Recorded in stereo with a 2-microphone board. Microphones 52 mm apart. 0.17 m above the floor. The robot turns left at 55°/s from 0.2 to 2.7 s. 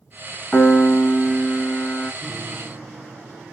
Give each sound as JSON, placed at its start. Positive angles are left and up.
{"t": 0.5, "sound": "a piano", "azimuth_deg": 160, "distance_m": 1.3}
{"t": 2.2, "sound": "a piano", "side_deg": -25, "distance_m": 0.7}